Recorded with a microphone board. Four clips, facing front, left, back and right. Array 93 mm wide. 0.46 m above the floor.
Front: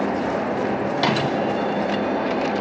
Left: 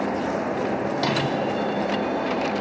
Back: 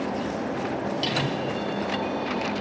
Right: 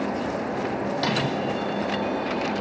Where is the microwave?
5° left, 3 m.